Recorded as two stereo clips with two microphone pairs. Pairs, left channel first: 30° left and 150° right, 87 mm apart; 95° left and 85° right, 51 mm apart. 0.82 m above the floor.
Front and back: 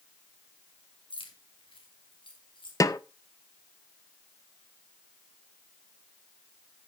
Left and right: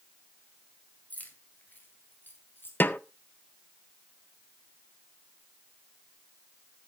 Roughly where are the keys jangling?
Ahead left.